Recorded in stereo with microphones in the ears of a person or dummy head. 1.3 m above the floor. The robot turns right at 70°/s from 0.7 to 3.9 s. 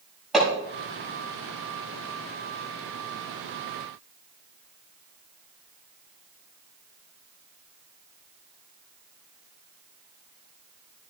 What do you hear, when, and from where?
0.3 s hammering: 5° left (ahead or behind), 5.5 m